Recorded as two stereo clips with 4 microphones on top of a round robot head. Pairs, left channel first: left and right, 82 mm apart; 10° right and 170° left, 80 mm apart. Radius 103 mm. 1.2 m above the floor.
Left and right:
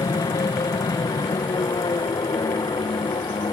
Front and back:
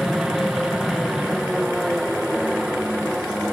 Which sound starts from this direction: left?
An aircraft, at 0.0 s.